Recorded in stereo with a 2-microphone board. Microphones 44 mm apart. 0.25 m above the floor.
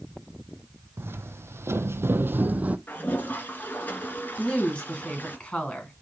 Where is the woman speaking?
25° left (ahead or behind), 2.5 m.